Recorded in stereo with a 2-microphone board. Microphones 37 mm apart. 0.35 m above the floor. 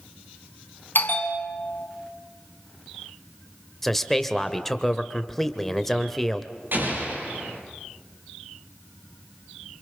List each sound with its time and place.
0.9 s a bell: 55° left (ahead or behind), 2 m
3.8 s a man speaking: 5° left (ahead or behind), 1.5 m
6.7 s an explosion: 60° right (ahead or behind), 8 m